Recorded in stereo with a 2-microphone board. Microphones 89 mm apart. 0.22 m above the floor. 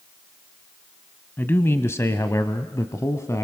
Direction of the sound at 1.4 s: 25° left (ahead or behind).